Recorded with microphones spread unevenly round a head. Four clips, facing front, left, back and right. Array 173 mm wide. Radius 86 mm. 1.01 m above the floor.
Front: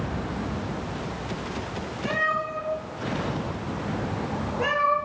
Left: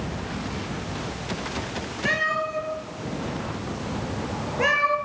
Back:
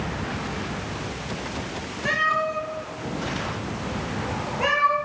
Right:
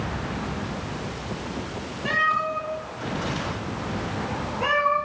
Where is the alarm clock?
I don't hear an alarm clock.